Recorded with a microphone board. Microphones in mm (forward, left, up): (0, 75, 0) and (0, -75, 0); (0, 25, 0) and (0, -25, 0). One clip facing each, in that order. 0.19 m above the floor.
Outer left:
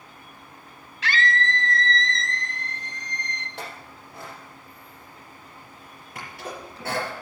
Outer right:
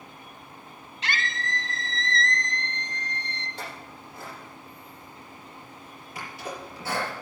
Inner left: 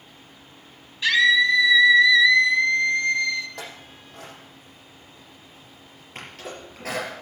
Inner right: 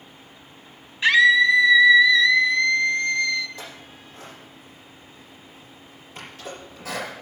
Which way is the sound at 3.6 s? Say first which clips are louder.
Outer left 1 dB, inner left 1 dB; 75° left (ahead or behind).